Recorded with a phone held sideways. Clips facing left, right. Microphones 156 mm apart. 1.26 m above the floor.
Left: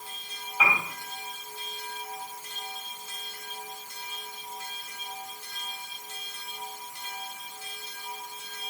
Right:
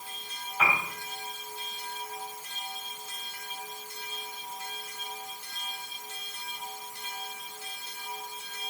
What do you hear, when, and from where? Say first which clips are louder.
0.6 s a piano: left 1 dB; centre (ahead or behind), 4 m